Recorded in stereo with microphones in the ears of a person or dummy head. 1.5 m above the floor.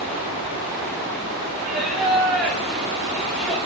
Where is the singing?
5° right (ahead or behind), 1.8 m.